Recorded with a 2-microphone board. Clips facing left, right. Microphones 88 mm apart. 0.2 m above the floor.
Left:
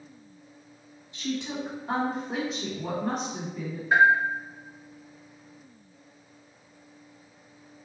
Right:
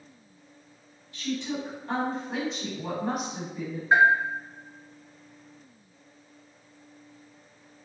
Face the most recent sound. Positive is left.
turn(degrees=-30)  # may be behind; listen again after turning